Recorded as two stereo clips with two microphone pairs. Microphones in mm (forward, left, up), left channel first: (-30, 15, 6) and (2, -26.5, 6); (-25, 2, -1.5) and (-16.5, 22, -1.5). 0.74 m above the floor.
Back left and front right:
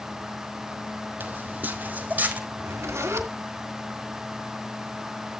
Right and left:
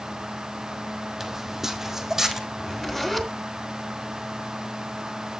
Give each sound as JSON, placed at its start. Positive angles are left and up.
{"t": 1.2, "sound": "footsteps", "azimuth_deg": -10, "distance_m": 1.3}
{"t": 2.5, "sound": "a zipper", "azimuth_deg": -35, "distance_m": 2.5}